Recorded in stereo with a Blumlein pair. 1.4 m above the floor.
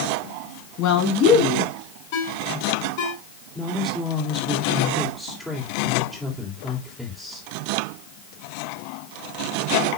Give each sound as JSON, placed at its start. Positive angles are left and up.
{"t": 0.8, "sound": "a woman speaking", "azimuth_deg": 40, "distance_m": 5.0}
{"t": 2.1, "sound": "a ringtone", "azimuth_deg": 45, "distance_m": 5.0}
{"t": 3.5, "sound": "a woman speaking", "azimuth_deg": 0, "distance_m": 3.5}